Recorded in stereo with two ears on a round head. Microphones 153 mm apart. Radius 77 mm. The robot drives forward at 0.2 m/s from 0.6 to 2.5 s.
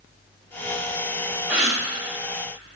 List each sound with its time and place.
1.5 s a gasp: 5° right (ahead or behind), 0.8 m